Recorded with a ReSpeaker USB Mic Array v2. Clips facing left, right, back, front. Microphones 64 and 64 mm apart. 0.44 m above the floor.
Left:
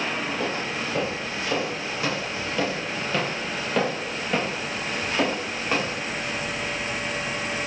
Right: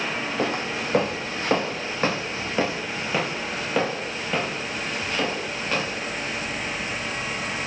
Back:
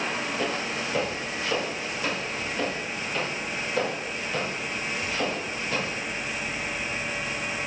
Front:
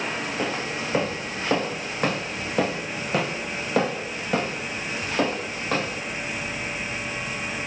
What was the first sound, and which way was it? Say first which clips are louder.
Footsteps: right 2 dB, front 1 dB; 70° right.